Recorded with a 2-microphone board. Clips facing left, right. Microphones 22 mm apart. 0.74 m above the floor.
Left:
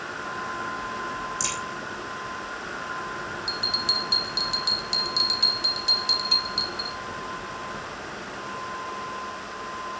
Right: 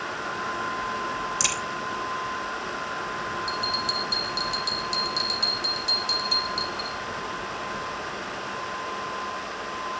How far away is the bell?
About 1.3 m.